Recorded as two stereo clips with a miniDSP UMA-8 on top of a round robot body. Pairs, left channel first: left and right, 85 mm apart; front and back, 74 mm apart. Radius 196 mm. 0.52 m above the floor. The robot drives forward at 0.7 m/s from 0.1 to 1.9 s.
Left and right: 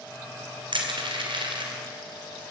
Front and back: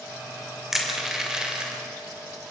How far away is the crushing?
About 4 m.